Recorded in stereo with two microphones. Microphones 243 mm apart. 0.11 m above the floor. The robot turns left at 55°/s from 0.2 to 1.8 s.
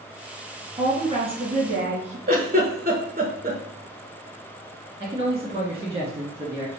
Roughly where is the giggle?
Right.